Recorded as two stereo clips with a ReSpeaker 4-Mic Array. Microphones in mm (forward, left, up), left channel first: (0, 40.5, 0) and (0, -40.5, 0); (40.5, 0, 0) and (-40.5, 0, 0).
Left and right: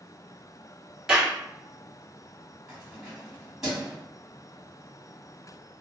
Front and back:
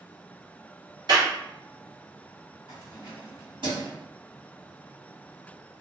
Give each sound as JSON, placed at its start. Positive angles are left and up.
{"t": 1.1, "sound": "a clap", "azimuth_deg": -170, "distance_m": 1.5}
{"t": 2.7, "sound": "keys jangling", "azimuth_deg": -175, "distance_m": 1.7}